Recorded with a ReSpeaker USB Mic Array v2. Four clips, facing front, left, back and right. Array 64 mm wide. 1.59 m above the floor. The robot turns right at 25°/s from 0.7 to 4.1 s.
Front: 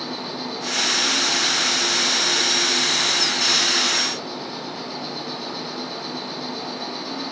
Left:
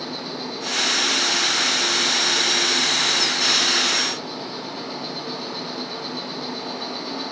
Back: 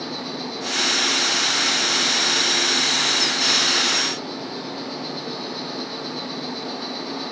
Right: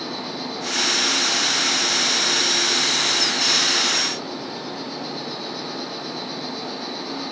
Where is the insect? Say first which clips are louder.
Right 1 dB, even; 25° right, 3.5 m; by 7.3 s 60° left, 3.5 m.